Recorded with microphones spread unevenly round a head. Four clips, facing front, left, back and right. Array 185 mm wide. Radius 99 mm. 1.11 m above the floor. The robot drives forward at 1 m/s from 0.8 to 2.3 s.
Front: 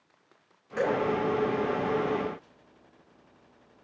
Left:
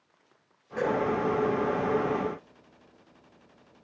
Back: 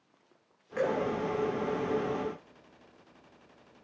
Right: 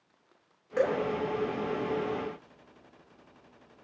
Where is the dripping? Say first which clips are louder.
Even, front 2 dB; 95° right, 4 m.